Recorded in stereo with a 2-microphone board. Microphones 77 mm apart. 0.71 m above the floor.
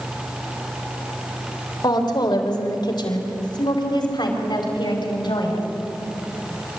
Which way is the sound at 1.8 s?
70° left (ahead or behind).